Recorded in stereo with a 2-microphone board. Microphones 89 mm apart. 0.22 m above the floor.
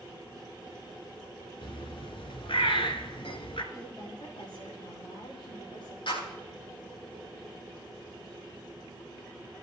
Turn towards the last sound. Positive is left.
turn(degrees=75)  # may be behind; listen again after turning